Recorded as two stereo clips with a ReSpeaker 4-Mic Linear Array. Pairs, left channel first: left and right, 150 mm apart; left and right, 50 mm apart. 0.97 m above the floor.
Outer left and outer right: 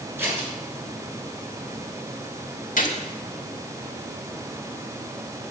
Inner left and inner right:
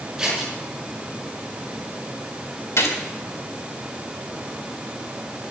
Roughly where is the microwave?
I don't hear a microwave.